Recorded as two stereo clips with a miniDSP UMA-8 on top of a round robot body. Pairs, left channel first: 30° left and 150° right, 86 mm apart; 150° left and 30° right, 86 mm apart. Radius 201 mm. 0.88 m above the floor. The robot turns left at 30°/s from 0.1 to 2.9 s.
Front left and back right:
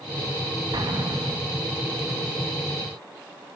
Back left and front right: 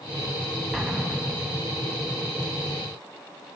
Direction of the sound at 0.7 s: 115° right.